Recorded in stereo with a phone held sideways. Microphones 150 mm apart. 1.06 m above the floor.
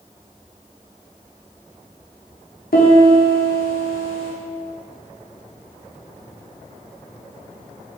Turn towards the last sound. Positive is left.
turn(degrees=70)  # may be behind; listen again after turning